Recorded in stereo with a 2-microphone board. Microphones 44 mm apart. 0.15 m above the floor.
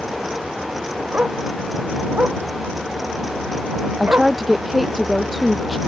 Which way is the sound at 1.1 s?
35° right (ahead or behind).